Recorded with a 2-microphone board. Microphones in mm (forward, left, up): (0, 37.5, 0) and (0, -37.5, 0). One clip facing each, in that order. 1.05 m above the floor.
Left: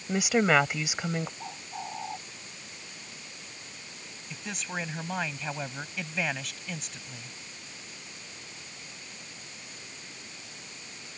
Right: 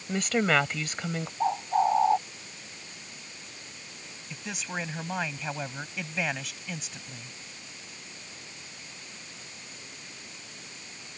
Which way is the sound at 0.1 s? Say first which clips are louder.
Left 2 dB; 10° left (ahead or behind).